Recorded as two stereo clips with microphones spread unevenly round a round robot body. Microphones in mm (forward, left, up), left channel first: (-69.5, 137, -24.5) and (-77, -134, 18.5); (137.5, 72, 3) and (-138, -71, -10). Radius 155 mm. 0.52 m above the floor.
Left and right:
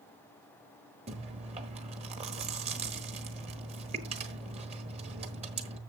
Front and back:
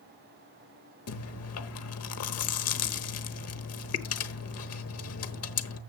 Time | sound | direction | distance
1.1 | chewing | 20° right | 1.2 m